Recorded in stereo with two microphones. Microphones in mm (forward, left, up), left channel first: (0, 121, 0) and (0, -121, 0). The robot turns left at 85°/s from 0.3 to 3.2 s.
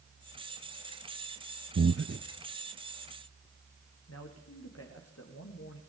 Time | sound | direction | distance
1.8 | breathing | 65° right (ahead or behind) | 0.8 m
4.1 | a man speaking | 80° left | 6.5 m